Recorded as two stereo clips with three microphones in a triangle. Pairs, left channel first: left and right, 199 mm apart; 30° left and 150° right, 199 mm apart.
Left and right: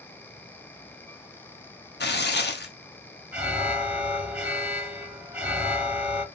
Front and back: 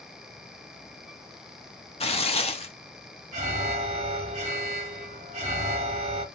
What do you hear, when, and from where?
2.0 s tearing paper: 80° left, 0.7 m
3.3 s an alarm: 170° right, 1.7 m